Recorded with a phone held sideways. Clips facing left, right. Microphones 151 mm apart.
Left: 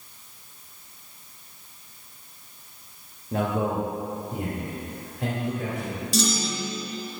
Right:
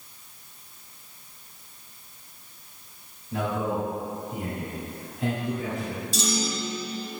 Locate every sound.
3.3 s a man speaking: 60° left (ahead or behind), 1.6 m; by 6.0 s 65° left (ahead or behind), 3.5 m
6.1 s a clunk: 75° left (ahead or behind), 2.5 m